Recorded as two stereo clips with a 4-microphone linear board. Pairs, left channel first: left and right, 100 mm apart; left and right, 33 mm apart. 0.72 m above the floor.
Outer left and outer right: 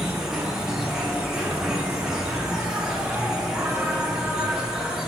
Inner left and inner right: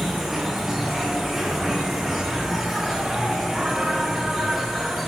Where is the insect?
5° right (ahead or behind), 0.8 m.